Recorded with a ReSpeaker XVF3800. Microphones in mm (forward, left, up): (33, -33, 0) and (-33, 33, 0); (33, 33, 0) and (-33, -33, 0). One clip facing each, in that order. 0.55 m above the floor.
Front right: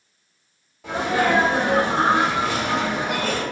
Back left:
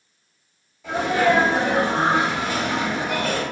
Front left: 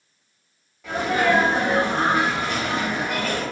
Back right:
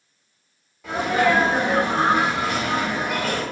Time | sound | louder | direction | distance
0.8 | a sneeze | back left 2 dB, back right 1 dB | 50° right | 1.2 m